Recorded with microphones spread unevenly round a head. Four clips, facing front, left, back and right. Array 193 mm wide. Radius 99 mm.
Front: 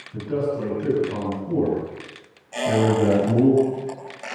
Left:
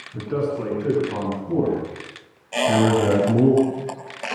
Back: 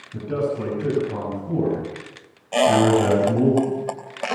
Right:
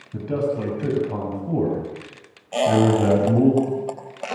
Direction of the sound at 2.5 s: 170° right.